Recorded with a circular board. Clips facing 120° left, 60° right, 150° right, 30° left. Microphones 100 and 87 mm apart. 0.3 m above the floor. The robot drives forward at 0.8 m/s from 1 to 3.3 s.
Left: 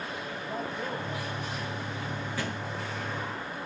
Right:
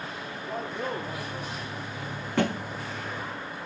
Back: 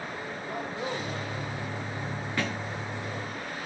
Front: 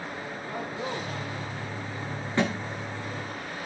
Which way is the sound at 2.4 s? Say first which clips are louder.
Right 12 dB, front 6 dB; 35° right.